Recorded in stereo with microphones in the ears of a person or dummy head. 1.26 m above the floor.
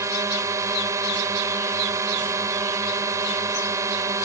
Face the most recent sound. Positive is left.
turn(degrees=-15)  # may be behind; listen again after turning